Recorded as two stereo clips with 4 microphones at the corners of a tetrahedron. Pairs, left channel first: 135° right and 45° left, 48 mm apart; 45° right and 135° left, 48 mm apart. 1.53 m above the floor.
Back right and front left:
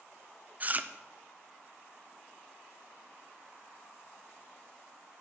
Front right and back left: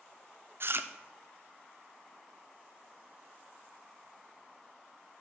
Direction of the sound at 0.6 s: 100° left.